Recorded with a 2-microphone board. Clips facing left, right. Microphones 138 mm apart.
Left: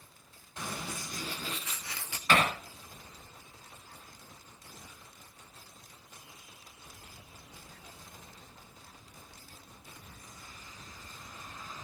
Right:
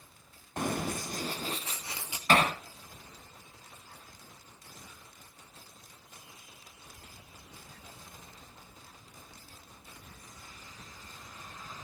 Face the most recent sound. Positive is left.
turn(degrees=-35)  # may be behind; listen again after turning